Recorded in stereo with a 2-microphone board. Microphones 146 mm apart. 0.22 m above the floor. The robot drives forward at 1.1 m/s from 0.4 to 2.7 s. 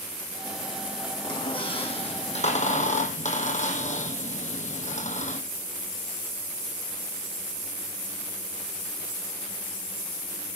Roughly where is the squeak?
Left.